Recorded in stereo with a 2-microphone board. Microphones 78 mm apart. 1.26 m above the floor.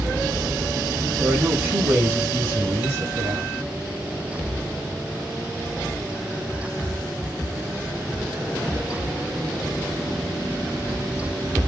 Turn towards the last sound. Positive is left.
turn(degrees=-40)  # may be behind; listen again after turning